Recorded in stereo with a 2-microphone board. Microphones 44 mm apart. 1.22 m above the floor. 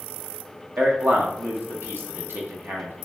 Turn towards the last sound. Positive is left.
turn(degrees=-55)  # may be behind; listen again after turning